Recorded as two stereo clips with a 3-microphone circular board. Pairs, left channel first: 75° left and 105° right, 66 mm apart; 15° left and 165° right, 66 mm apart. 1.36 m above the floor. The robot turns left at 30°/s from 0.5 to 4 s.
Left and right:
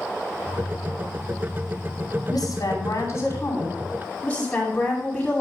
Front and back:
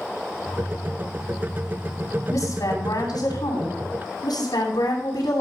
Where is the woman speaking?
50° left, 9 m; by 5.4 s straight ahead, 9 m.